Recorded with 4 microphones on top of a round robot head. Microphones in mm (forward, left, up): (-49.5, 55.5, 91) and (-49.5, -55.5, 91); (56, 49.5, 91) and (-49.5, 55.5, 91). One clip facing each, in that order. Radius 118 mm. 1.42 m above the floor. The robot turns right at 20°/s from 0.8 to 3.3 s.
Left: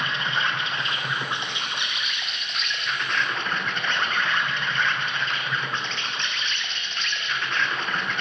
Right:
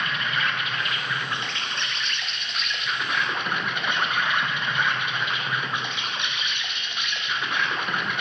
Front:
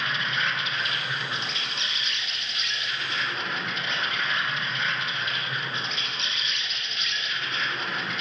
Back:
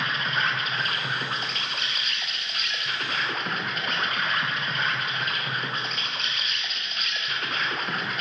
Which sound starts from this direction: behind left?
An insect, at 0.0 s.